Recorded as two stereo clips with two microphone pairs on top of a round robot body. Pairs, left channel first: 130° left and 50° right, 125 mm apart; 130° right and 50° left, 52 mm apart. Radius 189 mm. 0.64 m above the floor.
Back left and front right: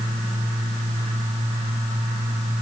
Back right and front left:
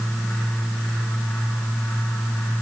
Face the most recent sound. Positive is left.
No sound to turn to.